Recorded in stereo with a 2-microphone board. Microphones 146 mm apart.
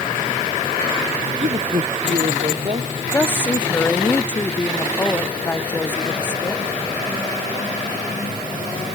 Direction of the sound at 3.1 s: 15° left (ahead or behind).